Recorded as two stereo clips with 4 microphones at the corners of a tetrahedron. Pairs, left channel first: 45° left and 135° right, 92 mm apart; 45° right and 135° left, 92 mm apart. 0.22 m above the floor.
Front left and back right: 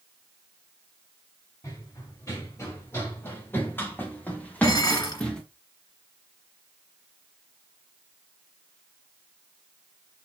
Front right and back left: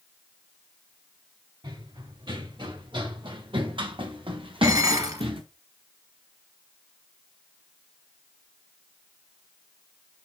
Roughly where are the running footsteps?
Left.